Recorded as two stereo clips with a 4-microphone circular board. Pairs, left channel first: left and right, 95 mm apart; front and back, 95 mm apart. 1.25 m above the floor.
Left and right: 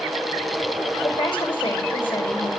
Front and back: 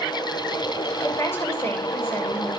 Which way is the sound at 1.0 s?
60° left.